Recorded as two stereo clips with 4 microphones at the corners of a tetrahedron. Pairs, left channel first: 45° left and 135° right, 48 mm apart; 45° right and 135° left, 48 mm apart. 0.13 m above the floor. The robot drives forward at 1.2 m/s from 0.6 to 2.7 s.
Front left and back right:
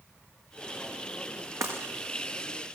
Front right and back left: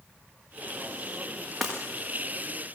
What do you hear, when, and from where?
1.6 s breaking glass: 135° right, 6.5 m